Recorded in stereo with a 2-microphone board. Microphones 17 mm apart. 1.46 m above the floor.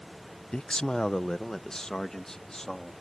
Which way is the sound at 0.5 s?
75° left (ahead or behind).